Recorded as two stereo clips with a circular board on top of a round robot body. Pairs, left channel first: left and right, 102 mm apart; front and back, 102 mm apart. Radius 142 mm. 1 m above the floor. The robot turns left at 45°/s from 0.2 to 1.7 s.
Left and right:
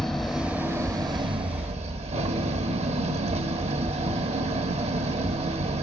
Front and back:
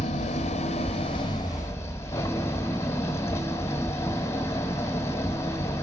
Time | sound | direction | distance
0.0 | an engine running | straight ahead | 1.0 m